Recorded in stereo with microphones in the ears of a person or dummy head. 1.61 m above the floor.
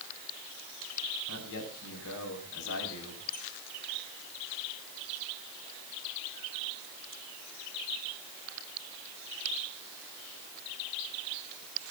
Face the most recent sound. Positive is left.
turn(degrees=55)  # may be behind; listen again after turning